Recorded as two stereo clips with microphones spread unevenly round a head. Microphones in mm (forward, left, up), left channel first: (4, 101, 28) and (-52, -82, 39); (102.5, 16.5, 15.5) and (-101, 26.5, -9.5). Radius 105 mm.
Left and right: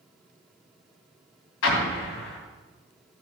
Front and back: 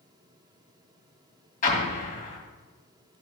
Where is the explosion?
50° left, 2 m.